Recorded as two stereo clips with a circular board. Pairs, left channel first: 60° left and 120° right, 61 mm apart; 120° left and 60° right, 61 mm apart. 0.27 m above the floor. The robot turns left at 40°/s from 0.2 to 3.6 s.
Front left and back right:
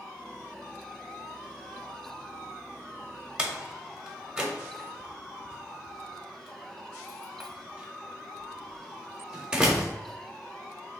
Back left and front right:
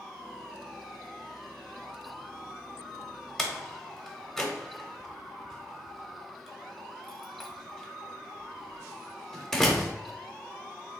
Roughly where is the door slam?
Behind.